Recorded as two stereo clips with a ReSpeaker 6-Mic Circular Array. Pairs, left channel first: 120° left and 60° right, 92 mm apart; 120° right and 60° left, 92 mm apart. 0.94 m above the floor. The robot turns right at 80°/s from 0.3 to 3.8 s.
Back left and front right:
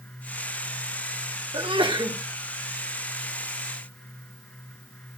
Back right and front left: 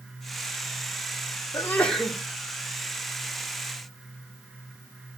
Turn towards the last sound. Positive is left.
turn(degrees=115)